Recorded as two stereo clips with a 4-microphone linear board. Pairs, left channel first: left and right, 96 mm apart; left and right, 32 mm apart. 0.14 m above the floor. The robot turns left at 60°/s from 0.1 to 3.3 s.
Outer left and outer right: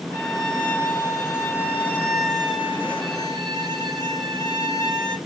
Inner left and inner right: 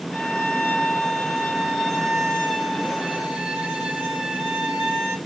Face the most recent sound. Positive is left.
turn(degrees=-60)